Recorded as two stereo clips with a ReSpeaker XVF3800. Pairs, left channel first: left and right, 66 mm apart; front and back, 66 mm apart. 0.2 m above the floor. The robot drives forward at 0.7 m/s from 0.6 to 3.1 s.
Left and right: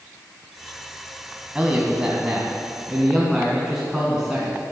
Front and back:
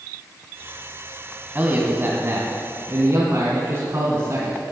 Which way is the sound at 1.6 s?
155° right.